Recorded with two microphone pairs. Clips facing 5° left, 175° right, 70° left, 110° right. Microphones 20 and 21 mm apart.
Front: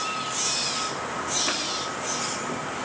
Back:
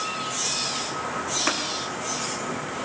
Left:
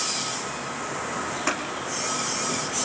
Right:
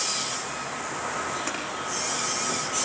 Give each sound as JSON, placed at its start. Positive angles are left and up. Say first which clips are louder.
{"t": 1.5, "sound": "scissors", "louder": "back 5 dB, left 5 dB", "azimuth_deg": 140, "distance_m": 5.5}